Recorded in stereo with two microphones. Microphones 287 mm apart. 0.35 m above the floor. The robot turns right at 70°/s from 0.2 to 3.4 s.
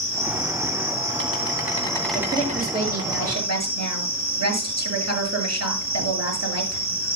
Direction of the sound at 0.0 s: 45° left.